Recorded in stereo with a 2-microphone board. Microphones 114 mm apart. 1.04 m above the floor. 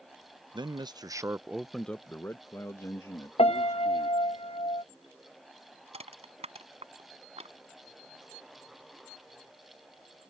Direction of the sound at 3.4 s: 60° left (ahead or behind).